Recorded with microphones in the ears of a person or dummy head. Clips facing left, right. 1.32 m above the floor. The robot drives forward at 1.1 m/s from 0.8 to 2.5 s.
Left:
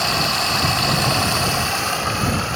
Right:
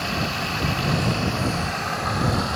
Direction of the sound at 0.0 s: 60° left (ahead or behind).